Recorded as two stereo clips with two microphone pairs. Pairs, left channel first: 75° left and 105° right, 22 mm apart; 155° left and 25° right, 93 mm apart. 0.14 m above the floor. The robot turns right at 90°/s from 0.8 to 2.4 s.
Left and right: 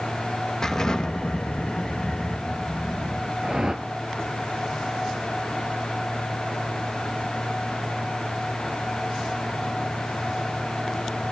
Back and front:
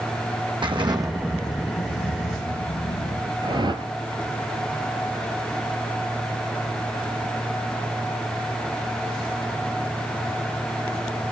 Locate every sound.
0.6 s an explosion: 10° left, 1.4 m; by 3.3 s 155° left, 1.4 m
3.4 s a whoosh: 50° right, 0.7 m